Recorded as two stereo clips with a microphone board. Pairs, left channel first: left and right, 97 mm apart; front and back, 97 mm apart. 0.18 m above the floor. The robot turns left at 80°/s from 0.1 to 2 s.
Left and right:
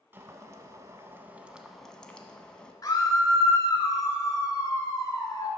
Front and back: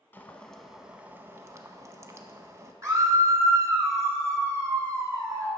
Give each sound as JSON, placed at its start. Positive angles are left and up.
{"t": 0.1, "sound": "boiling", "azimuth_deg": -50, "distance_m": 0.7}
{"t": 2.8, "sound": "a scream", "azimuth_deg": 130, "distance_m": 1.9}